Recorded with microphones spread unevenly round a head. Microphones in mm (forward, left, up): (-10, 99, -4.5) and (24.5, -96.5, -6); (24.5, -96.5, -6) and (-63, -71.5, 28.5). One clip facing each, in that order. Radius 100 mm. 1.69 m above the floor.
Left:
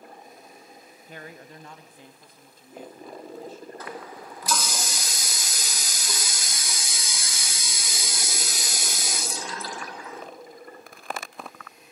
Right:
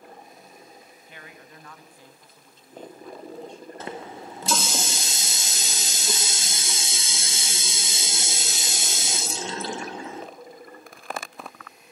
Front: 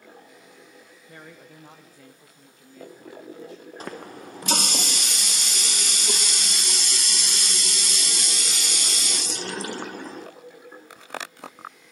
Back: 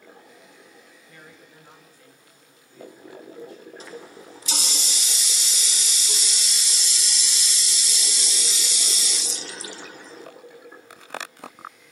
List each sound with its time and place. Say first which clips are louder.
1.1 s a woman speaking: left 6 dB, front 5 dB; 65° left, 0.9 m; by 3.7 s 15° left, 2.5 m
3.8 s a running tap: right 2 dB, front 3 dB; 35° right, 0.9 m